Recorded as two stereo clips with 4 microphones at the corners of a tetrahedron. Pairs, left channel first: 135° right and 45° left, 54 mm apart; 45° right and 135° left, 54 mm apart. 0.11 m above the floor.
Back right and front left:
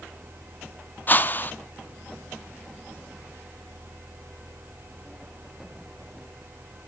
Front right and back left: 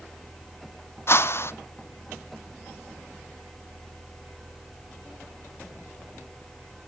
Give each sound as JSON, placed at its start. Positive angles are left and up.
{"t": 1.1, "sound": "a whoosh", "azimuth_deg": -80, "distance_m": 0.6}